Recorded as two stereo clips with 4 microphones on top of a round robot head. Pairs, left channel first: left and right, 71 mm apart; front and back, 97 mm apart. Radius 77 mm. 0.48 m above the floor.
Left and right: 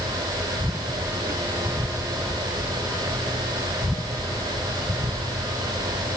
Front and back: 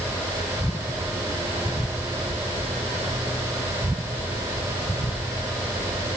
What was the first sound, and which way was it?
Only background noise.